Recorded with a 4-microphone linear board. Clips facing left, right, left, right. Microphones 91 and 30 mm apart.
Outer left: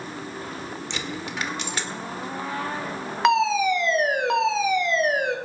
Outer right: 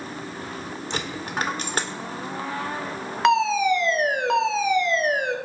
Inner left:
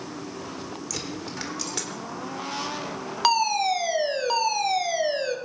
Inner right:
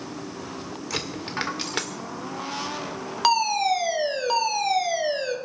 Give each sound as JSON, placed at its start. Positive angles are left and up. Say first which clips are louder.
{"t": 0.9, "sound": "a dropped coin", "louder": "outer right 5 dB, inner right 6 dB", "side_deg": -45, "distance_m": 1.9}
{"t": 3.2, "sound": "a fire alarm", "louder": "outer right 1 dB, inner right 1 dB", "side_deg": 0, "distance_m": 1.8}